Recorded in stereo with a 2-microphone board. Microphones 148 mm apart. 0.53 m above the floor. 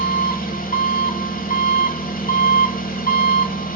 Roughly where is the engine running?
Left.